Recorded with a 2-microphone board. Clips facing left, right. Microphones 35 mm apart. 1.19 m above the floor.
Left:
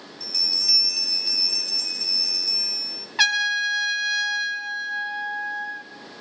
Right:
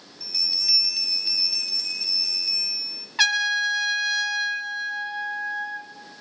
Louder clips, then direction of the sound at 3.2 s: Even; 5° left (ahead or behind).